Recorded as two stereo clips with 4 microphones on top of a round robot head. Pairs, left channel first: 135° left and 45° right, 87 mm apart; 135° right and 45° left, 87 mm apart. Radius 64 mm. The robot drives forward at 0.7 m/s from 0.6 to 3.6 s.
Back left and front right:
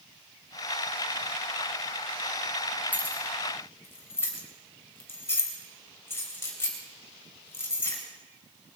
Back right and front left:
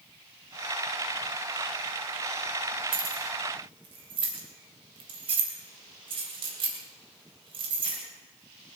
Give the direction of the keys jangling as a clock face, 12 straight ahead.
10 o'clock.